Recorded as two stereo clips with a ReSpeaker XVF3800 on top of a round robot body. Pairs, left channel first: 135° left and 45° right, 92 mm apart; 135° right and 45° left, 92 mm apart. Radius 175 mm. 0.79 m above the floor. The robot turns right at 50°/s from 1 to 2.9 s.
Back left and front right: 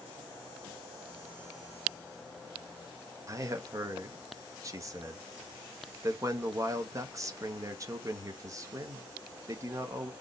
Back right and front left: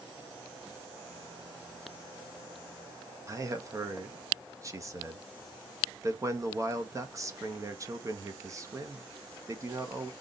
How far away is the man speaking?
About 1.1 m.